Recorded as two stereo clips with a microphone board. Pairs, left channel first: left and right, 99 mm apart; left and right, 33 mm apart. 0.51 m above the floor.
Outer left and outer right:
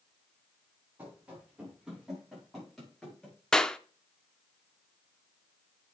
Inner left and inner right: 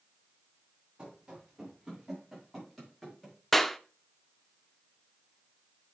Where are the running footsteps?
15° right (ahead or behind), 6 m; by 3.4 s 10° left (ahead or behind), 7.5 m.